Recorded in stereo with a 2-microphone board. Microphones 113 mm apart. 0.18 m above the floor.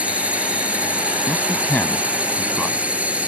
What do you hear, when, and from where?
0.0 s a drone: 10° right (ahead or behind)
1.3 s a man speaking: 15° left (ahead or behind)